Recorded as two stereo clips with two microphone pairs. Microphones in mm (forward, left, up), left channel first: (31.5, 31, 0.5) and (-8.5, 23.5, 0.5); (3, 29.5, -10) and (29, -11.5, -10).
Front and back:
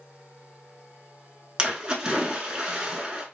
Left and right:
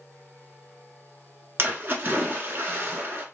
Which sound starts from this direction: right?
A splash, at 1.6 s.